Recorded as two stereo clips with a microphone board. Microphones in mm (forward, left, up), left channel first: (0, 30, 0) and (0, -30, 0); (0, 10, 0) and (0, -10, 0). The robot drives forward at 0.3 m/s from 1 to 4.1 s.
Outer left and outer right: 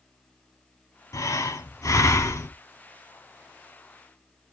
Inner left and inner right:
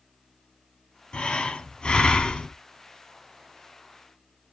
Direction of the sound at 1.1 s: 80° left.